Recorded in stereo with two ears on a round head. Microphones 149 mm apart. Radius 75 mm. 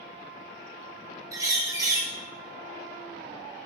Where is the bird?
20° right (ahead or behind), 1.0 m.